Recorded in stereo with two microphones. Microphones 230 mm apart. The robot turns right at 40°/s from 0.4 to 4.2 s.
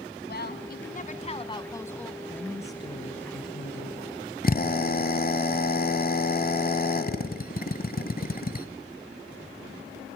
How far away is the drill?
About 1.5 m.